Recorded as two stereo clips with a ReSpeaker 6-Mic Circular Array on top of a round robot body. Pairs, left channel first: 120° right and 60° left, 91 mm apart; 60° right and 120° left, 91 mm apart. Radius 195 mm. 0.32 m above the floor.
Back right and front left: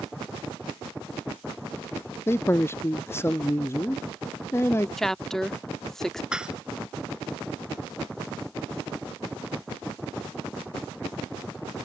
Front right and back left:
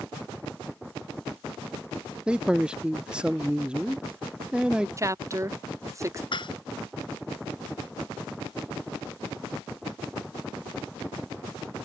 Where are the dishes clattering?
20° right.